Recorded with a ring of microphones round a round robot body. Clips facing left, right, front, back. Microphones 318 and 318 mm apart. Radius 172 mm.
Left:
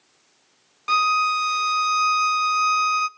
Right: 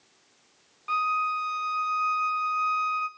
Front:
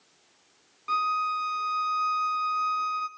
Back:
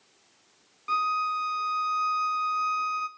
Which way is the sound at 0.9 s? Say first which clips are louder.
Left 6 dB, even; 90° left.